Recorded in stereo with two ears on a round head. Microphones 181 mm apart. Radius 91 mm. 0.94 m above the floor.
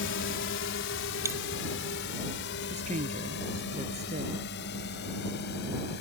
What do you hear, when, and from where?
0.0 s a drone: 65° left (ahead or behind); by 6.0 s 55° left (ahead or behind)
1.2 s a dropped coin: 15° right (ahead or behind)
2.7 s a woman speaking: 35° right (ahead or behind)